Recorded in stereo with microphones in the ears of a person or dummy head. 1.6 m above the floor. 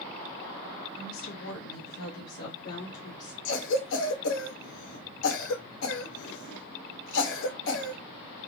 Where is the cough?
75° left (ahead or behind), 0.9 m.